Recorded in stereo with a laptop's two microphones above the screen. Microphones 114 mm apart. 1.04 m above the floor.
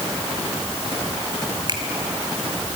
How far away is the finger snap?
About 2.5 m.